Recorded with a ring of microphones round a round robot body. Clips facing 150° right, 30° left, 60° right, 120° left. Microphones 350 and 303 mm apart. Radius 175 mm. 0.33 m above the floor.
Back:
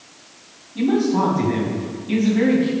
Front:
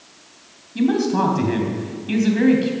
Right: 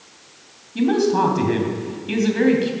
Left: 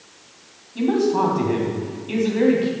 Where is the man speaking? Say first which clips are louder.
Even, right 1 dB; 15° right, 3 m.